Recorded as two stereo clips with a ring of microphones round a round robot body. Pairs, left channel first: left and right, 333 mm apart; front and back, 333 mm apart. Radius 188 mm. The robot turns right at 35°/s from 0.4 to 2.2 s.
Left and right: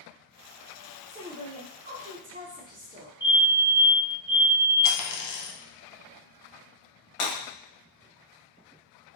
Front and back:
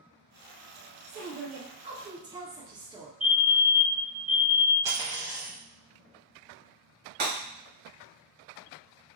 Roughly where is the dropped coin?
Left.